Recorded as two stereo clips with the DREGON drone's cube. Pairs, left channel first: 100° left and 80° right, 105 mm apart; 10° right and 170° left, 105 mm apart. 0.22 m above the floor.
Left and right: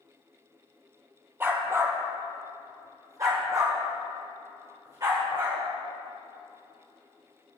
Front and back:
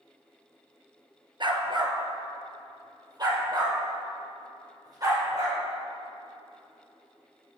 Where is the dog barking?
145° right, 1.2 m; by 5.6 s 135° right, 3.5 m.